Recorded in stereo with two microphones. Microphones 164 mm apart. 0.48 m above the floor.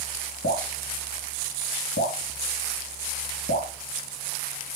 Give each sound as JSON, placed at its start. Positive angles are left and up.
{"t": 0.4, "sound": "dripping", "side_deg": 70, "distance_m": 2.5}